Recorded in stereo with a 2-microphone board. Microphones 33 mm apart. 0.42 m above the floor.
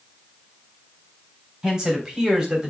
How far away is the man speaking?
About 3.5 m.